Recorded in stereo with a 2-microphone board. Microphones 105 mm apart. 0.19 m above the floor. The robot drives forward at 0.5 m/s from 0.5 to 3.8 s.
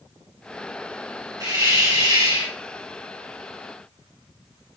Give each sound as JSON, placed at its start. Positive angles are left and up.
{"t": 1.4, "sound": "a hiss", "side_deg": -40, "distance_m": 2.5}